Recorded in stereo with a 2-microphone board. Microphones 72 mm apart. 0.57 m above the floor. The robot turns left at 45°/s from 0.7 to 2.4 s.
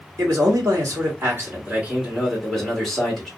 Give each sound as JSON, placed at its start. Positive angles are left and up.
{"t": 0.2, "sound": "a man speaking", "azimuth_deg": -110, "distance_m": 1.6}